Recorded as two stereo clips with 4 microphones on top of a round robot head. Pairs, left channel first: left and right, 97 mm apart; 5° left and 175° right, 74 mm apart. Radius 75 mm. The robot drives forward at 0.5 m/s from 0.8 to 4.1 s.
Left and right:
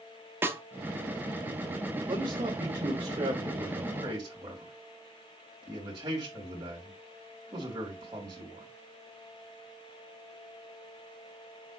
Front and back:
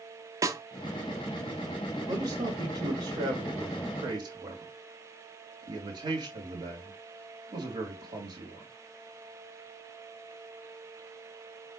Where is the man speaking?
135° right, 2.5 m; by 8.7 s 150° right, 3 m.